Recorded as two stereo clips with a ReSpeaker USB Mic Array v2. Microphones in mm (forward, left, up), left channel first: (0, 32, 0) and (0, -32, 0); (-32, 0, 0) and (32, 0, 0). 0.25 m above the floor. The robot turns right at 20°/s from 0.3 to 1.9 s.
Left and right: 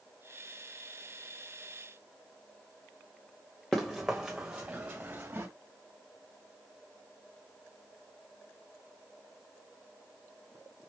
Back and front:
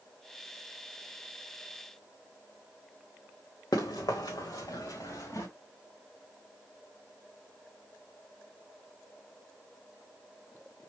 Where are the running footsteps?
175° left, 1.3 m; by 5.5 s 150° right, 1.9 m.